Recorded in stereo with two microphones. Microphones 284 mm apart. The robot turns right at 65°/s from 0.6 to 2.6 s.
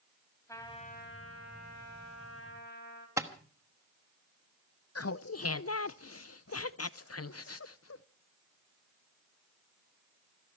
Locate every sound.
0.5 s a trumpet: 10° left, 3 m; by 3.1 s 140° left, 3 m
3.2 s tapping: 10° right (ahead or behind), 1.1 m
5.0 s laughter: 55° left (ahead or behind), 0.5 m